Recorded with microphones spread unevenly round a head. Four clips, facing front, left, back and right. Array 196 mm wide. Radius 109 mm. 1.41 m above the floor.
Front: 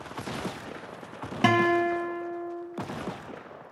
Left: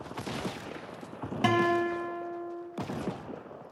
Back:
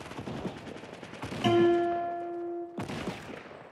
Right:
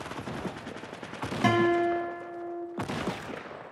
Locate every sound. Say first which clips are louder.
1.4 s a guitar: right 2 dB, front 1 dB; straight ahead, 2 m